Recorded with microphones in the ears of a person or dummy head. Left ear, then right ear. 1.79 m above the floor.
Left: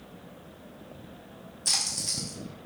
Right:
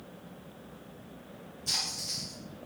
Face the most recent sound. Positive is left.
turn(degrees=60)  # may be behind; listen again after turning